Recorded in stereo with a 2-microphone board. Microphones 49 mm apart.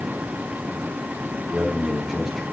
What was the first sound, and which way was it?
A man speaking, 5° right (ahead or behind).